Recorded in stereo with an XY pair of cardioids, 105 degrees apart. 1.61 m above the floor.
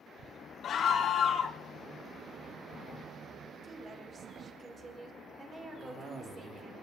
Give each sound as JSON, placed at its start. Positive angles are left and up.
{"t": 0.6, "sound": "a scream", "azimuth_deg": 60, "distance_m": 1.1}
{"t": 3.6, "sound": "a woman speaking", "azimuth_deg": -40, "distance_m": 4.5}
{"t": 5.8, "sound": "a cough", "azimuth_deg": -50, "distance_m": 3.0}